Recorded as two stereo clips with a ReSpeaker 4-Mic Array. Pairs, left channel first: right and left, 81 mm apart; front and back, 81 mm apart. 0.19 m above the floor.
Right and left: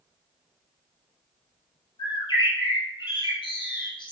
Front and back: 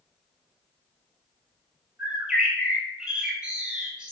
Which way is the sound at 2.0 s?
100° right.